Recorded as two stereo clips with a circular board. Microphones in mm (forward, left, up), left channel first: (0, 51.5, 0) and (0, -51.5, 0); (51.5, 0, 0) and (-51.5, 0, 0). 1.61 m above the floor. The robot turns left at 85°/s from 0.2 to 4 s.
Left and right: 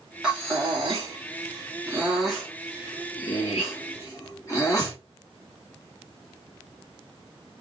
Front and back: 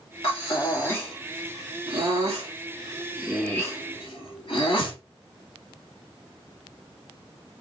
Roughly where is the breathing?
Ahead.